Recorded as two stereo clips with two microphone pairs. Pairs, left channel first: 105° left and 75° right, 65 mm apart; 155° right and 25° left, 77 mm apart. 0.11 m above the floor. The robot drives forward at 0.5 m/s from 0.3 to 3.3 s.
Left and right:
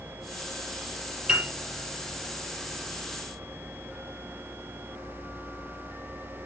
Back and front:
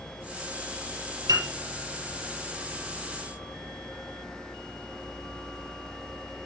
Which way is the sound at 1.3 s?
5° right.